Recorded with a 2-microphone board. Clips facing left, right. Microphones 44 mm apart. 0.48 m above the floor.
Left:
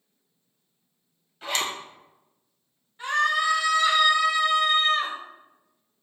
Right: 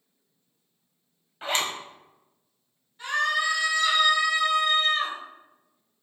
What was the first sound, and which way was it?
A zipper, 35° right (ahead or behind).